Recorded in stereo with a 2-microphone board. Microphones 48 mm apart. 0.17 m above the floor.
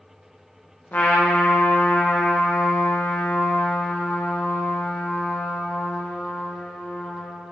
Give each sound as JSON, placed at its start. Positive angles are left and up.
{"t": 0.9, "sound": "a trumpet", "side_deg": 45, "distance_m": 3.0}